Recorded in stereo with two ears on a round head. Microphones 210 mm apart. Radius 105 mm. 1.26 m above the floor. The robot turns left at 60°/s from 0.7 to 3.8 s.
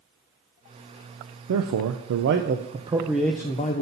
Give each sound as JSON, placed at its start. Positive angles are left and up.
{"t": 1.5, "sound": "a man speaking", "azimuth_deg": -80, "distance_m": 0.5}